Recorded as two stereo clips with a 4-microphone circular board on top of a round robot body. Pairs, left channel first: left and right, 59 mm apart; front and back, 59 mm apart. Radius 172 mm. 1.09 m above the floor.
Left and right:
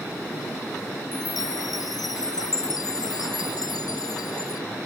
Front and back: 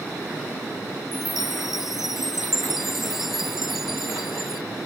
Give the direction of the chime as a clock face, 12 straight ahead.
9 o'clock.